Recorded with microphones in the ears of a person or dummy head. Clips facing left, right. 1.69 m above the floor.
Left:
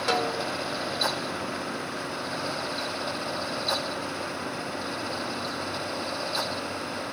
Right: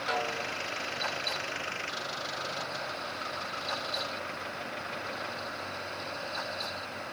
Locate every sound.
0.1 s a snare drum: 65° left (ahead or behind), 0.9 m